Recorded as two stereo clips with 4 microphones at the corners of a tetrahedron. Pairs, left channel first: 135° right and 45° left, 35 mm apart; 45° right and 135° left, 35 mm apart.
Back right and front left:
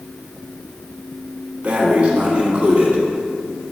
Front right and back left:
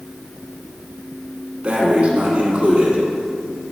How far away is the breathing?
About 1.3 m.